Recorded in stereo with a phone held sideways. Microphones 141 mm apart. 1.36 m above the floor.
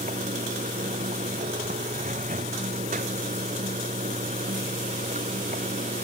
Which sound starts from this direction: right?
Running water, at 0.0 s.